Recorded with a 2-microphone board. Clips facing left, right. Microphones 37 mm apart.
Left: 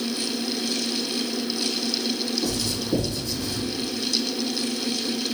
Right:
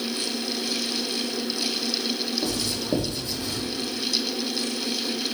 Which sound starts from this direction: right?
Writing, at 2.4 s.